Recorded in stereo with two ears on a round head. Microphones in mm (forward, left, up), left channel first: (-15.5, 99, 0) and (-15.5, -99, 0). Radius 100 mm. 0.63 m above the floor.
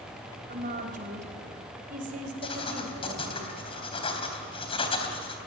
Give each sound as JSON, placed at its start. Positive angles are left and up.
{"t": 0.5, "sound": "a woman speaking", "side_deg": -40, "distance_m": 4.0}
{"t": 2.4, "sound": "writing", "side_deg": 30, "distance_m": 3.5}